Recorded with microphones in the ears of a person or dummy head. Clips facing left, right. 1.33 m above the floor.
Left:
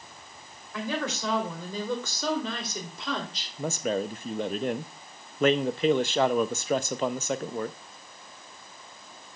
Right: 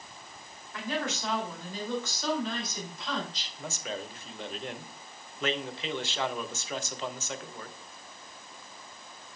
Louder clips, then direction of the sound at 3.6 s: Left 10 dB; 50° left (ahead or behind).